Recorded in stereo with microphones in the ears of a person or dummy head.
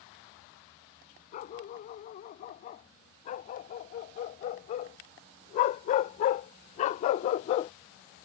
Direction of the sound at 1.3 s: 40° left (ahead or behind).